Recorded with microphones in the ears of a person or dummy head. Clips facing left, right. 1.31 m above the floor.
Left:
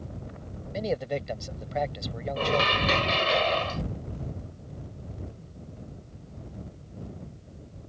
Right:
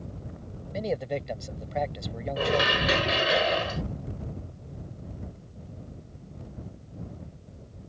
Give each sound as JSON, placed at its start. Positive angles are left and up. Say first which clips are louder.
{"t": 0.7, "sound": "a man speaking", "louder": "even", "side_deg": -5}
{"t": 2.4, "sound": "dishes clattering", "louder": "right 1 dB", "side_deg": -10}